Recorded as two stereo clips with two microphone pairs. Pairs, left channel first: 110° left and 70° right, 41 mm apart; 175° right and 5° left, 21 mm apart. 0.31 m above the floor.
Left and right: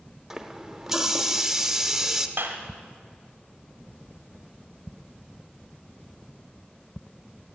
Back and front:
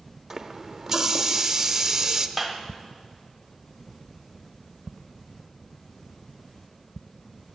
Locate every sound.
0.3 s a running tap: straight ahead, 0.6 m
2.4 s a clap: 80° right, 1.3 m